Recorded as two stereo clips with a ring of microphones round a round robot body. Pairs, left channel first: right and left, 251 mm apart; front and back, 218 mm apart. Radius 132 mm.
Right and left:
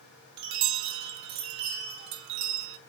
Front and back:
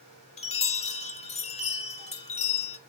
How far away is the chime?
About 0.8 m.